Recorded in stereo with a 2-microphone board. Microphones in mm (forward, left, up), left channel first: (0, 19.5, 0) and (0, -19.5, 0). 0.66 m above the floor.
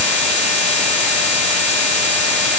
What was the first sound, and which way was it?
Only background noise.